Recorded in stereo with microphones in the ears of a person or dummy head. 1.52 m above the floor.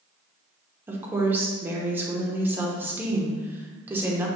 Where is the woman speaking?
15° right (ahead or behind), 0.9 m.